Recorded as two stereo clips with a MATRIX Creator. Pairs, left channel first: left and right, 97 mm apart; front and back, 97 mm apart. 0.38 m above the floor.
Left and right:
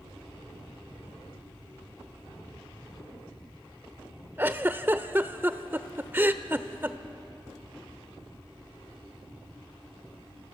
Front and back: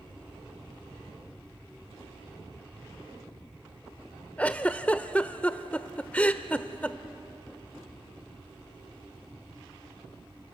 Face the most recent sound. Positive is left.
turn(degrees=-55)